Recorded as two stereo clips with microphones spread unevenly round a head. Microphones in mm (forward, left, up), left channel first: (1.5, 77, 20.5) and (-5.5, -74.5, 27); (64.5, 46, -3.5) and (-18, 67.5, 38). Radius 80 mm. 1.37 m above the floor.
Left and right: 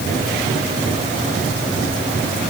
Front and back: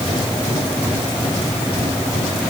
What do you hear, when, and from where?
Only background noise.